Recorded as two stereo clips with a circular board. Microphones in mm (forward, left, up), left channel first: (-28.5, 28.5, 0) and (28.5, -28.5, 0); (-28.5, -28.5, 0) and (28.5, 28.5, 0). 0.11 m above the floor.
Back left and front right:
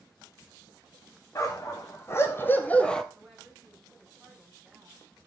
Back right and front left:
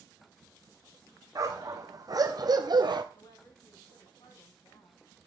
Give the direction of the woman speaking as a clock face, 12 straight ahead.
4 o'clock.